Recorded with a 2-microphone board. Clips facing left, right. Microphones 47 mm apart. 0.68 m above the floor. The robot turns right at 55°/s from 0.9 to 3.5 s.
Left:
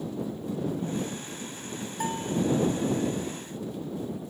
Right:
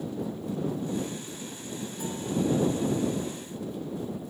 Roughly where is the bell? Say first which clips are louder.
Left 4 dB; left.